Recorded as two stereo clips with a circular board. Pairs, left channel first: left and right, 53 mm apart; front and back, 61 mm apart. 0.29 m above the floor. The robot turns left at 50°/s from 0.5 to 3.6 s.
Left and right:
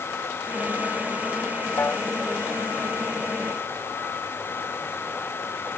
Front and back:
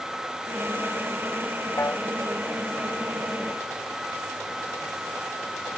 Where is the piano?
45° left; by 2.0 s 30° left.